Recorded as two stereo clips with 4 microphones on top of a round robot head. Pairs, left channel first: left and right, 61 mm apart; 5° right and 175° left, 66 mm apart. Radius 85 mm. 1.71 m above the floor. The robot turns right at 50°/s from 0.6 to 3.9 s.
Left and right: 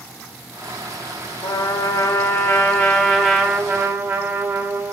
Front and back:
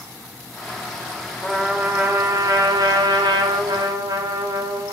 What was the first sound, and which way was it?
A trumpet, 90° left.